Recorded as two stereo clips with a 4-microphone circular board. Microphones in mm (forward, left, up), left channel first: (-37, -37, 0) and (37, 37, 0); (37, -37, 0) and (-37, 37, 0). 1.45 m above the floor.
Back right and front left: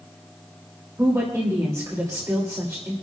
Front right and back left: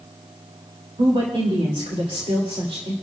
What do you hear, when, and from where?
1.0 s a woman speaking: 105° left, 2.5 m